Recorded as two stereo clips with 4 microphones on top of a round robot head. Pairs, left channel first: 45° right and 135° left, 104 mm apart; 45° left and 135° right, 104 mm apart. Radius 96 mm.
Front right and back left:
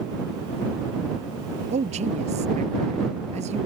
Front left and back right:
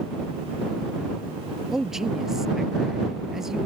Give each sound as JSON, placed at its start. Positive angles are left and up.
{"t": 1.7, "sound": "a man speaking", "azimuth_deg": 135}